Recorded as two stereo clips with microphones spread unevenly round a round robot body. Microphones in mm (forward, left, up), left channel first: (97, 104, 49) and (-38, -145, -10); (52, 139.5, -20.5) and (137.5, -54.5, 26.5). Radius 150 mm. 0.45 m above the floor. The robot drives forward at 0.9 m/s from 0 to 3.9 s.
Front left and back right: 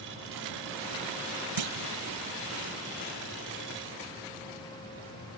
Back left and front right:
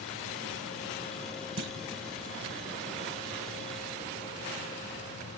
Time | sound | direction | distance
1.6 | a clunk | 105° right | 0.6 m